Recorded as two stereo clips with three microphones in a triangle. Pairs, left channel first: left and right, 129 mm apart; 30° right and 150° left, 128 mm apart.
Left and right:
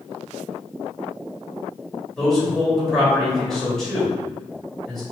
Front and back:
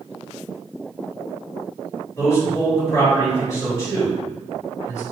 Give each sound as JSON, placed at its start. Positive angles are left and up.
{"t": 2.2, "sound": "a man speaking", "azimuth_deg": 5, "distance_m": 1.6}